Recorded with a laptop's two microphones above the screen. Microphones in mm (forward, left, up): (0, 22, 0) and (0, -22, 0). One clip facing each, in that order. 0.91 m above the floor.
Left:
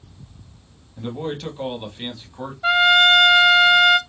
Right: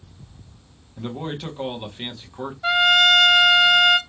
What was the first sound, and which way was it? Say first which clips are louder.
A man speaking: left 2 dB; 10° right (ahead or behind).